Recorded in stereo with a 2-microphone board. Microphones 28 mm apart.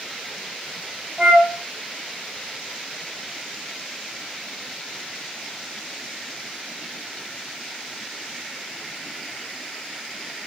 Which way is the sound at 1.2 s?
10° right (ahead or behind).